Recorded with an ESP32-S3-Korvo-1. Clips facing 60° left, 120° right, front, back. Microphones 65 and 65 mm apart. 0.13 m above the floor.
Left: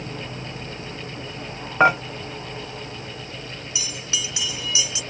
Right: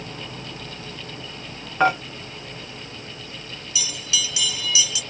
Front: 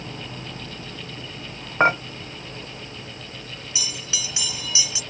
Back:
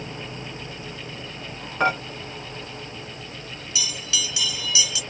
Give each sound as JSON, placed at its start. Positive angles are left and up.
{"t": 1.8, "sound": "dishes clattering", "azimuth_deg": 10, "distance_m": 0.9}
{"t": 3.8, "sound": "a bell", "azimuth_deg": 35, "distance_m": 1.3}